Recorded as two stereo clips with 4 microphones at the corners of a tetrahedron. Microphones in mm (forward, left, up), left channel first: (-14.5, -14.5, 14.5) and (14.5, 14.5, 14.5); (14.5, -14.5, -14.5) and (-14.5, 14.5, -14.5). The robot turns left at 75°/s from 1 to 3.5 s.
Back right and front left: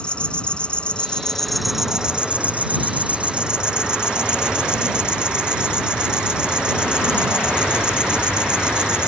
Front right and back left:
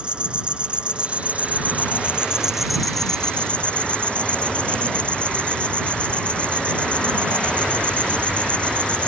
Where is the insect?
Straight behind; by 9.1 s 10° right.